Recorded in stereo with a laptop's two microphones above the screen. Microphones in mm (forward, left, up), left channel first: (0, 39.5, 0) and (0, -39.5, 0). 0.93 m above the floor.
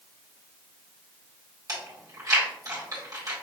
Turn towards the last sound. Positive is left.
turn(degrees=-50)  # may be behind; listen again after turning